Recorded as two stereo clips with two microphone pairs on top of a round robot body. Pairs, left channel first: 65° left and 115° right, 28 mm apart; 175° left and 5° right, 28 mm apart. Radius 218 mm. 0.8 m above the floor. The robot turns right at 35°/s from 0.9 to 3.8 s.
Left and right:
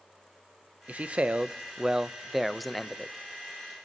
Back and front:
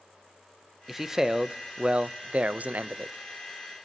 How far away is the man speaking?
About 0.5 m.